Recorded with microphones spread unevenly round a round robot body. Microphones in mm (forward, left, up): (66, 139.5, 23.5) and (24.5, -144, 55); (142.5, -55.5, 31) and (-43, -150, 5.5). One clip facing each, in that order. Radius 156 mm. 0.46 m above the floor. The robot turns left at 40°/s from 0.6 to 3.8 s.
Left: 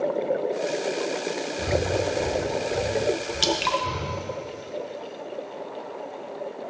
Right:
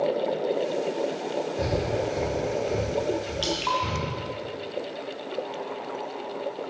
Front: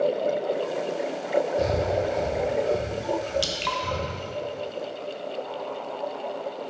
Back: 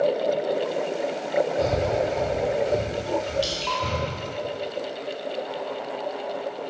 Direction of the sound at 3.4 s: 50° left.